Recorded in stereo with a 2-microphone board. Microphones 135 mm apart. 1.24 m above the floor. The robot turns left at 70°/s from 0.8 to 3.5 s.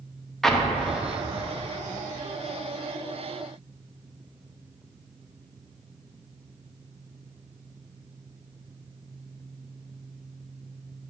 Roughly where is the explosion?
Centre.